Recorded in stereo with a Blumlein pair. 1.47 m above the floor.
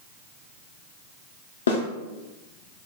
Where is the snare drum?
70° left, 0.6 m.